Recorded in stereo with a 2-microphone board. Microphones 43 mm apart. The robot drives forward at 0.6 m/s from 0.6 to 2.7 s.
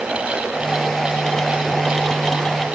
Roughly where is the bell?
I don't hear a bell.